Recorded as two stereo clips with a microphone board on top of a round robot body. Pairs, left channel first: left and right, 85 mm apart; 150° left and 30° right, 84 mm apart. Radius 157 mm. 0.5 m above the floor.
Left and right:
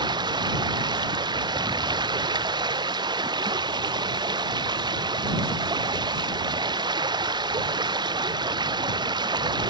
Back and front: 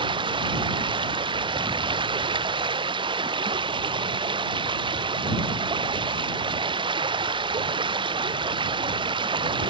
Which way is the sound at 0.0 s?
55° right.